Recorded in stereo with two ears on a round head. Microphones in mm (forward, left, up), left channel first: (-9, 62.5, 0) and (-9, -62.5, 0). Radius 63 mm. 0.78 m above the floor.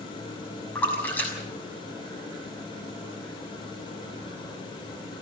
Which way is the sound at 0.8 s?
15° left (ahead or behind).